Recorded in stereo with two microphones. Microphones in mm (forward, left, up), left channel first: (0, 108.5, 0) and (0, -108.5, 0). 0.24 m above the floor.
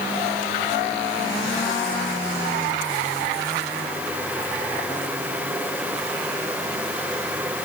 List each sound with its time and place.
Only background noise.